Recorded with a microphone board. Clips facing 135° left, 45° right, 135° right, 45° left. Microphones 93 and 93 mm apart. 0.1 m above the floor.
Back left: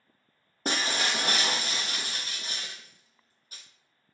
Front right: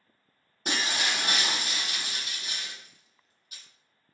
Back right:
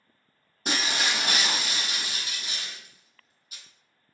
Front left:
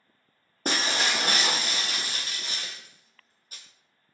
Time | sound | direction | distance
0.7 | breaking glass | 85° left | 0.6 m